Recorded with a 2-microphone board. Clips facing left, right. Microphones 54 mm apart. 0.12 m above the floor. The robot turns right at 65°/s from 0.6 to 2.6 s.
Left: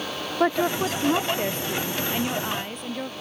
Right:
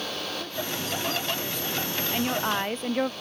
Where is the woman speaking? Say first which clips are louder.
Left 11 dB; 80° left; by 3.1 s 150° right.